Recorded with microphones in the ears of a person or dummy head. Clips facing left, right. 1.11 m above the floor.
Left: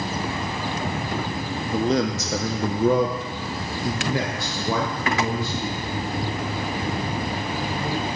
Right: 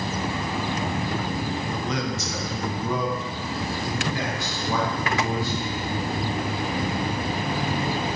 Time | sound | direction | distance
1.7 | a man speaking | 15° left (ahead or behind) | 0.6 m